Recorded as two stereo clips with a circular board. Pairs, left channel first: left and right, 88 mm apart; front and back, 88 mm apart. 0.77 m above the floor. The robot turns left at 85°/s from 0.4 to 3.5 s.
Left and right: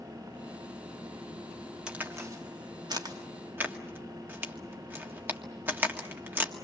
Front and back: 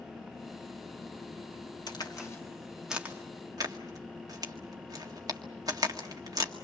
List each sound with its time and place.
1.9 s a crack: 10° right, 1.8 m; by 6.5 s 150° right, 1.8 m